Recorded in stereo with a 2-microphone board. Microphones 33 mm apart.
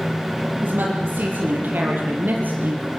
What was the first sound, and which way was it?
A woman speaking, 75° right (ahead or behind).